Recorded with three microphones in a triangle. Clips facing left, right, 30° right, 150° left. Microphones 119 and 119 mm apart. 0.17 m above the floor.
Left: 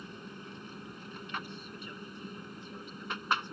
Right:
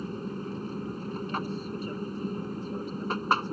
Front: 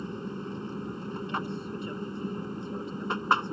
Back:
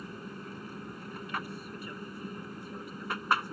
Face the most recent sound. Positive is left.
turn(degrees=-80)